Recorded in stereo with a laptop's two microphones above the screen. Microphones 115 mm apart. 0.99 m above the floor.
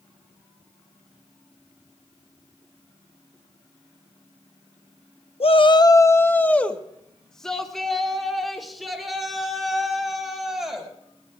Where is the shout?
55° left (ahead or behind), 0.6 m; by 10.9 s 5° right (ahead or behind), 7 m.